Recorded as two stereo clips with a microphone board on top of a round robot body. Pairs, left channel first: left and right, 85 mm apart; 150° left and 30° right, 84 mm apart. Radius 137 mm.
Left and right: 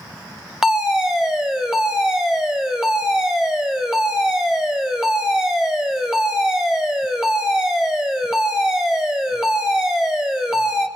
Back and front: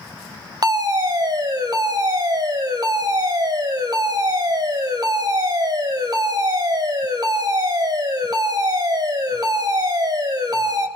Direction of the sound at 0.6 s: 5° right.